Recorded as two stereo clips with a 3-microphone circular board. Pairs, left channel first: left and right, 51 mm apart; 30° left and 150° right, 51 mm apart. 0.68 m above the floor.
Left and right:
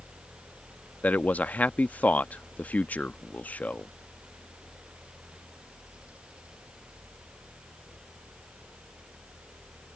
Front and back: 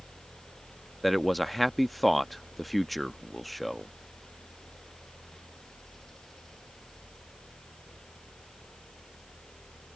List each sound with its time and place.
1.0 s a man speaking: 115° left